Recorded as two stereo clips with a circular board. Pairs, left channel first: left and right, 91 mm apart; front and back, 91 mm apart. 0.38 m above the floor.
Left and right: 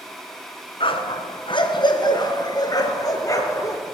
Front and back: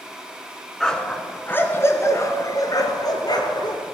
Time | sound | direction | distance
0.8 | a dog barking | 85° left | 1.5 m